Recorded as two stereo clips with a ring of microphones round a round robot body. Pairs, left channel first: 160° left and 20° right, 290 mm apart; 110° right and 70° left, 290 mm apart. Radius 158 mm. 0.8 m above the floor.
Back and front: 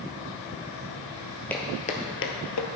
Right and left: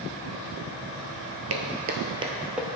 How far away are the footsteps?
About 1.0 m.